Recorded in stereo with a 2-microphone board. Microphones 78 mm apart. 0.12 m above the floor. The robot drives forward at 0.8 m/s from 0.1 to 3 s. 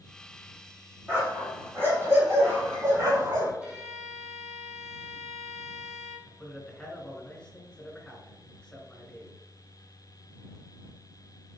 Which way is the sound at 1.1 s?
25° right (ahead or behind).